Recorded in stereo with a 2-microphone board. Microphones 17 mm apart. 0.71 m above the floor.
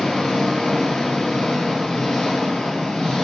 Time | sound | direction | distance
0.0 | an engine running | 75° left (ahead or behind) | 10 m